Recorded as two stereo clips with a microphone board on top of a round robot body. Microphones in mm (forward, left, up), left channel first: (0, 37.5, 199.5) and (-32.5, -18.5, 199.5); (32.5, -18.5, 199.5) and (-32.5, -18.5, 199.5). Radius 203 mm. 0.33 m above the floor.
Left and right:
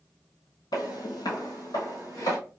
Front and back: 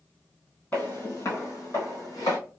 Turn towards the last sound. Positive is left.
turn(degrees=25)